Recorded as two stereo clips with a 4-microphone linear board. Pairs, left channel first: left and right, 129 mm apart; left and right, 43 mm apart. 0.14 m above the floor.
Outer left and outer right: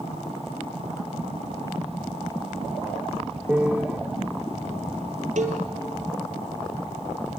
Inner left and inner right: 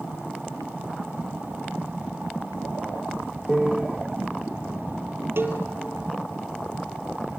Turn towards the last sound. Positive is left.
turn(degrees=-70)  # may be behind; listen again after turning